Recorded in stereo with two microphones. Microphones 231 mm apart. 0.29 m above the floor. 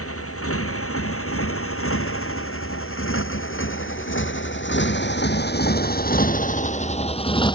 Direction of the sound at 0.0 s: 75° left (ahead or behind).